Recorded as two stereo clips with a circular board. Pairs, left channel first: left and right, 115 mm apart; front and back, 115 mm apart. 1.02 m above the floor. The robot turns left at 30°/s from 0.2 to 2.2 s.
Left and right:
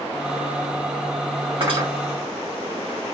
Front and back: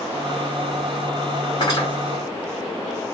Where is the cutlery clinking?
50° right, 1.7 m; by 1.9 s 55° right, 1.7 m.